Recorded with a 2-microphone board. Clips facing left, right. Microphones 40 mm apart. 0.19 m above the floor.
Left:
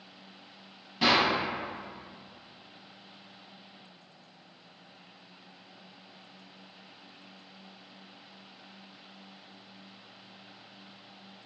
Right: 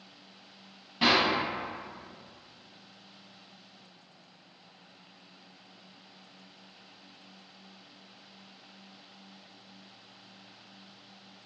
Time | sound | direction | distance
1.0 | a clap | 10° right (ahead or behind) | 0.9 m